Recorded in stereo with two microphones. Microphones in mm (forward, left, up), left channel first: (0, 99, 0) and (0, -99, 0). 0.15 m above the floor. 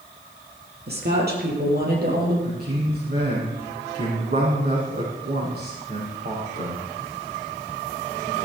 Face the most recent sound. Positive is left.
turn(degrees=-55)  # may be behind; listen again after turning